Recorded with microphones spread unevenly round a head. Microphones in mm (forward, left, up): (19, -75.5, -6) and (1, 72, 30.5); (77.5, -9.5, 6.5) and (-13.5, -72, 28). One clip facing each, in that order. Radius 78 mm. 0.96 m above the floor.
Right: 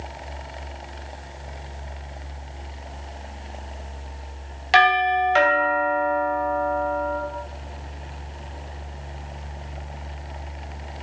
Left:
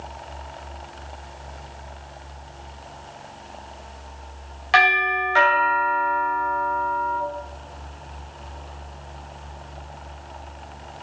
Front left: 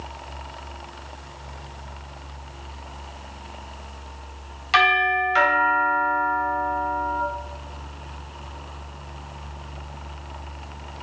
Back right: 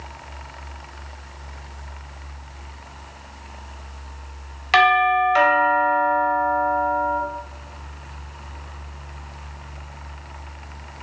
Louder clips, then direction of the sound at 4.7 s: Right 4 dB, back right 4 dB; 130° right.